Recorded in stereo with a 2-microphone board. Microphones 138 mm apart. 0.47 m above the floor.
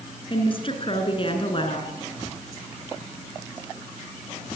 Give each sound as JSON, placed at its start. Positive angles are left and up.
{"t": 0.3, "sound": "a woman speaking", "side_deg": 40, "distance_m": 6.0}